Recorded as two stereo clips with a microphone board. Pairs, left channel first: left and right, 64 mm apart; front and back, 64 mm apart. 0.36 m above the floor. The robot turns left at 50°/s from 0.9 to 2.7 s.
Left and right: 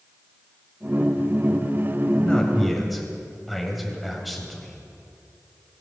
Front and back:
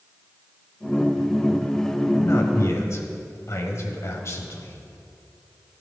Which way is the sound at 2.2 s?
25° left.